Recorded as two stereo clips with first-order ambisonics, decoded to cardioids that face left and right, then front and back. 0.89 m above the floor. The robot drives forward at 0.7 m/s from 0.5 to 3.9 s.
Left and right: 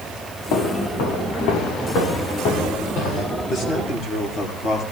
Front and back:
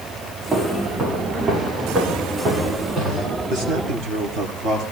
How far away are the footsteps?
About 5.5 m.